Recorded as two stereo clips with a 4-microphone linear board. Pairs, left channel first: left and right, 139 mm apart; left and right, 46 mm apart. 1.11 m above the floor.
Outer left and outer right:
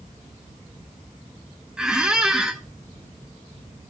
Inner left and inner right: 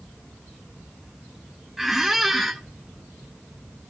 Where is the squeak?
5° right (ahead or behind), 0.6 m.